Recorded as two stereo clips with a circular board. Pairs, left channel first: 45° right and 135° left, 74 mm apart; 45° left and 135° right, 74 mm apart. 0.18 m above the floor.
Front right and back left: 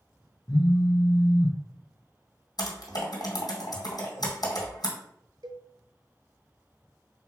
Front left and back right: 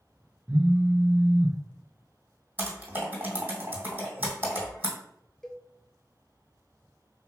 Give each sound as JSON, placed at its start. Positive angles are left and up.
{"t": 0.5, "sound": "a phone buzzing", "azimuth_deg": -65, "distance_m": 0.6}
{"t": 2.6, "sound": "typing on a keyboard", "azimuth_deg": -65, "distance_m": 1.9}
{"t": 5.4, "sound": "a cowbell", "azimuth_deg": 130, "distance_m": 0.6}